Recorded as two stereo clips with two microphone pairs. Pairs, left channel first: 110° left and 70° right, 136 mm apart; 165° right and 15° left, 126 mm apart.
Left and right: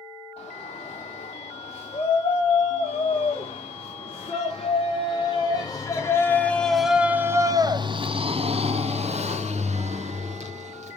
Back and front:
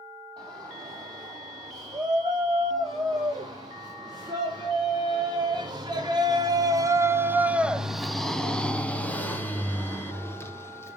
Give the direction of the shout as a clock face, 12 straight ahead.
10 o'clock.